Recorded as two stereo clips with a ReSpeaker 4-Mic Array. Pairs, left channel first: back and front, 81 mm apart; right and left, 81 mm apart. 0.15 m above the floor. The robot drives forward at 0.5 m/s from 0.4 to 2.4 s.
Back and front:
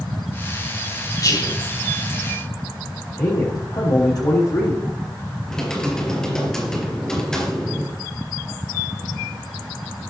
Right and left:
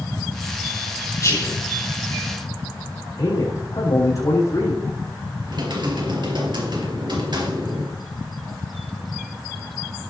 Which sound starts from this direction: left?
Typing on a keyboard, at 5.5 s.